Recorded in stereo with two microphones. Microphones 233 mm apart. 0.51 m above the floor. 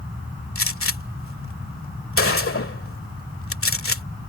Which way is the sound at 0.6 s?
65° left (ahead or behind).